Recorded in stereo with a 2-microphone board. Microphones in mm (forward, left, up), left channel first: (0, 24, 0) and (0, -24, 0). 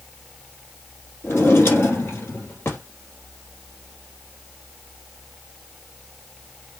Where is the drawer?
60° left (ahead or behind), 2.5 m.